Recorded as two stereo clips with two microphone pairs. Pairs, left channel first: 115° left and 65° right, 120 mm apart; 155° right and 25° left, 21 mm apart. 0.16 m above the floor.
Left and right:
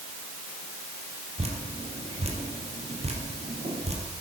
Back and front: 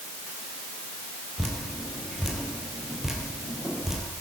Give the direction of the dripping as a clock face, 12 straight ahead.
2 o'clock.